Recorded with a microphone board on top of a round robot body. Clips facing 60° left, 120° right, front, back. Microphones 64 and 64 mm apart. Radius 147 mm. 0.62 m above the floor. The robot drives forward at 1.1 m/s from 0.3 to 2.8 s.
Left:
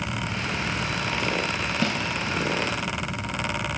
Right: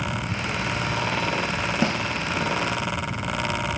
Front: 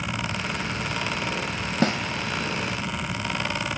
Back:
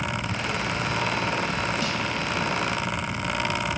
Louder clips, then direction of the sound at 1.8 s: Right 2 dB, front 5 dB; 45° right.